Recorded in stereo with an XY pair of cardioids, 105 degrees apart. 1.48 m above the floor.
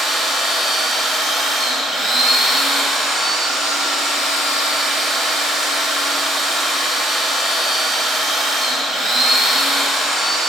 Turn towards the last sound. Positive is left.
turn(degrees=-50)